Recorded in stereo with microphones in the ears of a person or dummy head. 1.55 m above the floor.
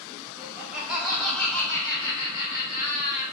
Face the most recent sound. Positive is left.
turn(degrees=45)  # may be behind; listen again after turning